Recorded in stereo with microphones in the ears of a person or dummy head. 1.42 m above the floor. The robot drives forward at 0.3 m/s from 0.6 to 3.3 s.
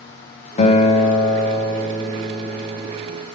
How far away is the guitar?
About 0.7 m.